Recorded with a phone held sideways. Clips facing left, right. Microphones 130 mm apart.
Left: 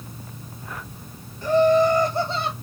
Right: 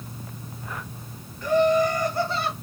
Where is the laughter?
30° left (ahead or behind), 1.4 m; by 2.5 s 20° left (ahead or behind), 0.9 m.